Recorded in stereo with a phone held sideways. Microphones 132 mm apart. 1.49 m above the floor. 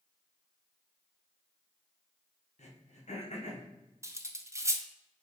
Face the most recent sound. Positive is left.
turn(degrees=-25)  # may be behind; listen again after turning